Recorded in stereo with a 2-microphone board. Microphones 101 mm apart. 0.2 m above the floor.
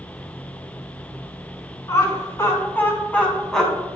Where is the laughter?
35° left (ahead or behind), 2 m; by 3.9 s centre (ahead or behind), 1.7 m.